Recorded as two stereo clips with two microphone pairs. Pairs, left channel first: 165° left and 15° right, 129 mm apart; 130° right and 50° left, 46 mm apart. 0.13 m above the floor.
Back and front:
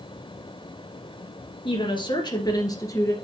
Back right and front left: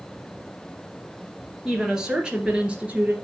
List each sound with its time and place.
1.6 s a woman speaking: 125° left, 2.5 m; by 3.1 s 100° left, 2 m